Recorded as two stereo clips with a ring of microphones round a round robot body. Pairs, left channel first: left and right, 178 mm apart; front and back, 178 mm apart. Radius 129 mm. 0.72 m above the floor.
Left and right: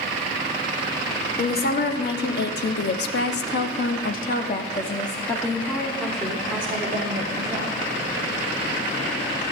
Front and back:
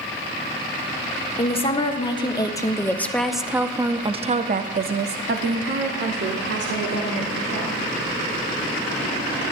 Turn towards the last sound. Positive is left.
turn(degrees=-165)